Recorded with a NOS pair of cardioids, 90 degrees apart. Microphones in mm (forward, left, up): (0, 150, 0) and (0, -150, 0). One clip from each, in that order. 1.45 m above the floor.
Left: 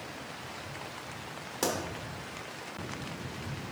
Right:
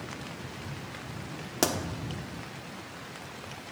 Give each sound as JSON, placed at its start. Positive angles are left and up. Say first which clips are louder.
{"t": 1.6, "sound": "a pop", "louder": "right 3 dB", "azimuth_deg": -50, "distance_m": 1.1}